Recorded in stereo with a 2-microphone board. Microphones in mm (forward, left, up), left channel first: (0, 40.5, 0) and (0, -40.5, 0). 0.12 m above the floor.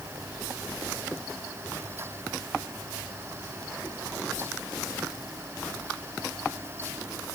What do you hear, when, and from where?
Only background noise.